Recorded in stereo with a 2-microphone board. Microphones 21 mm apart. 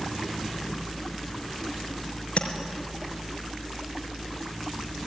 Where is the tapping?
70° left (ahead or behind), 4 m.